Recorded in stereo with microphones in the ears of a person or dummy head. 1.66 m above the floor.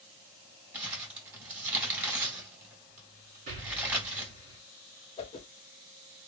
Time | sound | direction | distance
0.7 | crumpling | 15° right (ahead or behind) | 2.5 m
3.5 | an explosion | 45° right (ahead or behind) | 2 m
5.2 | a whoosh | 30° left (ahead or behind) | 0.8 m